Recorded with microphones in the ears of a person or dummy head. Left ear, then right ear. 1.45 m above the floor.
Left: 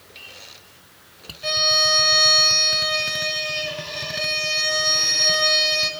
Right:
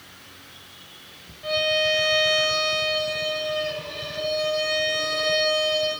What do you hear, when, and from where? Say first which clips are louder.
1.4 s a violin: left 4 dB; 85° left, 8.5 m